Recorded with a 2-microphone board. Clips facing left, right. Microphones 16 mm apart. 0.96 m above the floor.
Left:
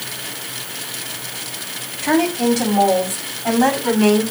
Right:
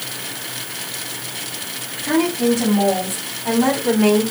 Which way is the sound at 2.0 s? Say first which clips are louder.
Left 1 dB; 70° left (ahead or behind).